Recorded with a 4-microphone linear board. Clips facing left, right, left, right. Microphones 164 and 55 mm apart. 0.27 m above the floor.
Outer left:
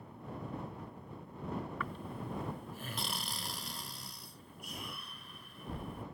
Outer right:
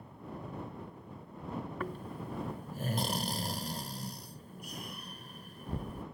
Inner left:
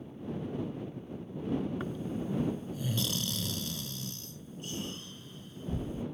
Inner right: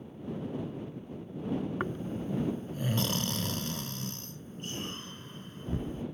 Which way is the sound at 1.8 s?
45° right (ahead or behind).